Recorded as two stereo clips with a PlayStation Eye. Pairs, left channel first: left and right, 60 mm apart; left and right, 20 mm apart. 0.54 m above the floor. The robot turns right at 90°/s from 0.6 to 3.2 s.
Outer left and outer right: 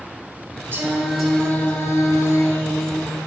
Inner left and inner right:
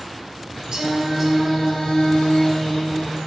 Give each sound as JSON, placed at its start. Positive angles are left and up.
{"t": 0.7, "sound": "singing", "azimuth_deg": -40, "distance_m": 3.5}